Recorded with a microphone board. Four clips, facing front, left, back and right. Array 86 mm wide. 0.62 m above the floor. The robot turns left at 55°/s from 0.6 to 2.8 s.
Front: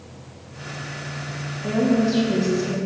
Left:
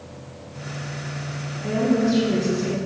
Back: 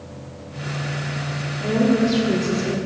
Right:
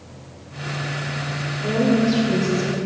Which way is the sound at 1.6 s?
135° right.